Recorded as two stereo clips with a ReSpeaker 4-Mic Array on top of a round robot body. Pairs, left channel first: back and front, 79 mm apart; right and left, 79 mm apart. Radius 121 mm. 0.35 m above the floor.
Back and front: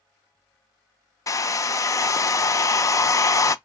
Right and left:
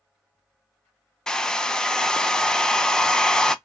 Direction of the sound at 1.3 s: 165° right.